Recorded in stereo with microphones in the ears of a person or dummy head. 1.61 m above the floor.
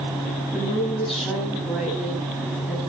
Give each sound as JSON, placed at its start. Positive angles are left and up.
{"t": 0.5, "sound": "a woman speaking", "side_deg": 0, "distance_m": 10.0}